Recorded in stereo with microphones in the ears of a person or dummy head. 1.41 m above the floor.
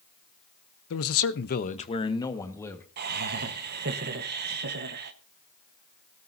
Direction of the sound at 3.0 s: 55° right (ahead or behind).